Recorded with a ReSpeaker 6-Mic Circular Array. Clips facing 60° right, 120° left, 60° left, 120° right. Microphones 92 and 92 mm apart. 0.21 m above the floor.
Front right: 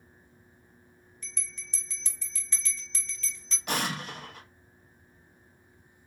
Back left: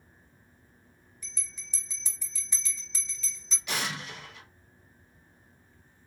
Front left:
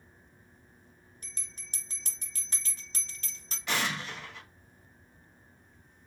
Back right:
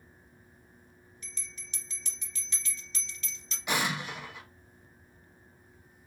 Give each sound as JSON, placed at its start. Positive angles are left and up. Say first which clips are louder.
{"t": 1.2, "sound": "a bell", "louder": "front right 4 dB, back right 3 dB", "azimuth_deg": 45, "distance_m": 0.9}
{"t": 3.7, "sound": "an explosion", "louder": "front right 3 dB, back right 2 dB", "azimuth_deg": -50, "distance_m": 0.6}